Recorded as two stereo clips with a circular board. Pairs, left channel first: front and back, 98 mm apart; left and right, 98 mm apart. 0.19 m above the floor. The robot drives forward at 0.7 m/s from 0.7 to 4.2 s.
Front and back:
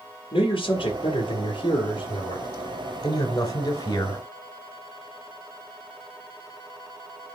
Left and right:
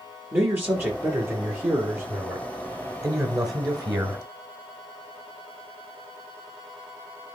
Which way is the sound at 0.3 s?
25° right.